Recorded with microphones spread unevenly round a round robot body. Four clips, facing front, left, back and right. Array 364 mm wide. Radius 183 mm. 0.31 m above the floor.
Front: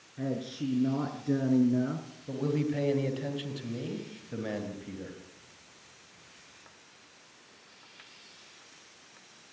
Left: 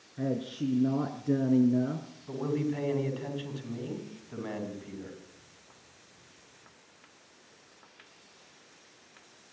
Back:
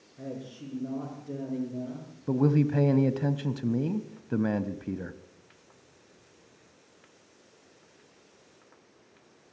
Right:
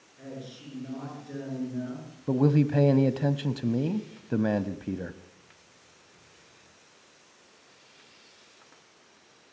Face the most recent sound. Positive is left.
turn(degrees=-125)